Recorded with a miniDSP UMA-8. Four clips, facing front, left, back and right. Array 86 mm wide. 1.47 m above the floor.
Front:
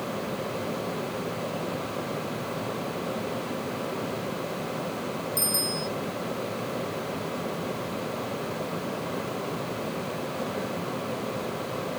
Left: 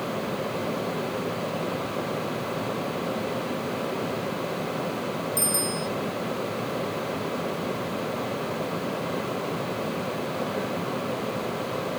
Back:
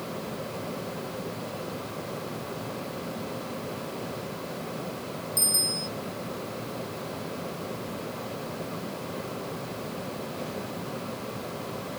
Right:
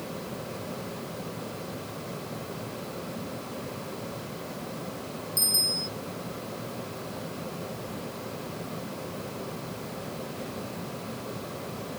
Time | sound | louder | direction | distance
5.4 | a bicycle bell | left 8 dB, front 4 dB | 55° left | ?